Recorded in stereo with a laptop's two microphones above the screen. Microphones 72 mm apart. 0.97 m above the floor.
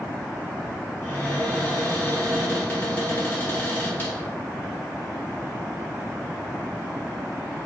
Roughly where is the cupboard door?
Left.